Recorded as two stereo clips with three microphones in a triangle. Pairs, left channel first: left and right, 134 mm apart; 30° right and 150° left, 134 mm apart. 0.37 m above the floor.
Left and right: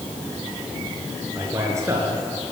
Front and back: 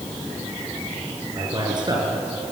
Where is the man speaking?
155° right, 5.5 m.